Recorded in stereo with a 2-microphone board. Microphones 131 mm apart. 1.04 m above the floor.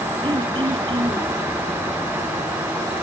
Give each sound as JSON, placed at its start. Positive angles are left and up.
{"t": 0.2, "sound": "throat clearing", "side_deg": -40, "distance_m": 1.8}